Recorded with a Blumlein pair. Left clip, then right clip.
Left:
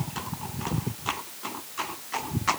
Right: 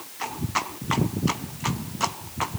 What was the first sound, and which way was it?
Only background noise.